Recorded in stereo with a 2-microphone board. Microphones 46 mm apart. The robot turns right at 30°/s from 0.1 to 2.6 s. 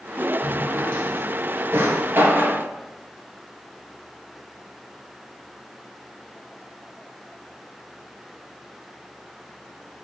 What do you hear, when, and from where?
0.4 s a drawer: 45° right (ahead or behind), 1.4 m